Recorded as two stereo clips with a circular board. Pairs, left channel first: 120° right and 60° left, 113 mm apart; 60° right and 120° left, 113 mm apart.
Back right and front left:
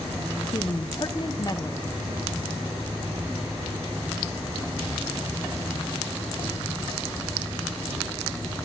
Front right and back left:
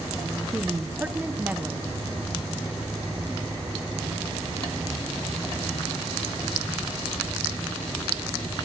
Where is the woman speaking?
165° right, 0.7 m.